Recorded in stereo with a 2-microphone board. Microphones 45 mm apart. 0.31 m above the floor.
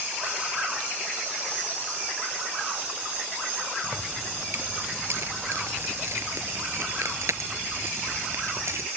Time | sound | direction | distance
3.8 | keys jangling | 65° right (ahead or behind) | ?